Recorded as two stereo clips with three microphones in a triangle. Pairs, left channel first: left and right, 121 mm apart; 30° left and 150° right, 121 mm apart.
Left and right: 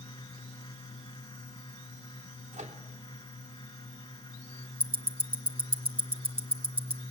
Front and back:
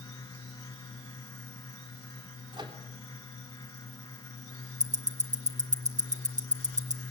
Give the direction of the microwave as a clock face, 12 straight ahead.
3 o'clock.